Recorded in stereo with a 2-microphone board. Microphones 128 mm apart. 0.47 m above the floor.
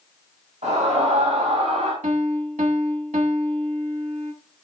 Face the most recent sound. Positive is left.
turn(degrees=-70)  # may be behind; listen again after turning